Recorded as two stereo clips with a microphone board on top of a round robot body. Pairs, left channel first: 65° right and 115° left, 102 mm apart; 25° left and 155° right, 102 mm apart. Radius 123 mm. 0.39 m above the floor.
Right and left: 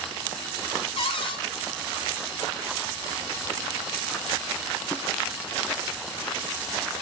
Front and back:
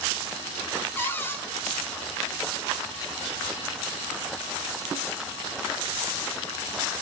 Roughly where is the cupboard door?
Ahead right.